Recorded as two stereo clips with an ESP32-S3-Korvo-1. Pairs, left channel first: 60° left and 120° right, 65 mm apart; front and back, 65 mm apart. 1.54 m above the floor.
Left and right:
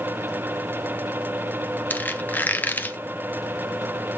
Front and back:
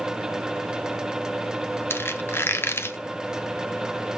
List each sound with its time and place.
1.9 s a squeak: 15° left, 0.7 m